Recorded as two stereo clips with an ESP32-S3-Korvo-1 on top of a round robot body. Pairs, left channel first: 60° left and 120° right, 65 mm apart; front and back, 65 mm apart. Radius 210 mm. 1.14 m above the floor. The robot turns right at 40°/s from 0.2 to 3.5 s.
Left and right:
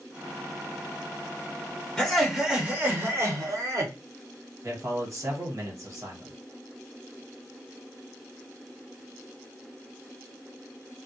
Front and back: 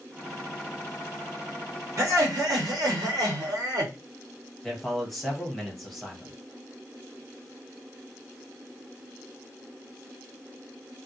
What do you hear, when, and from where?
2.0 s laughter: 135° left, 0.9 m; by 3.9 s 160° right, 0.9 m
4.6 s a man speaking: 85° right, 1.3 m